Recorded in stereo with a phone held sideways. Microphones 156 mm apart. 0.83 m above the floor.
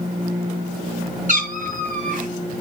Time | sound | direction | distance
1.3 | a cat meowing | 60° right (ahead or behind) | 1.6 m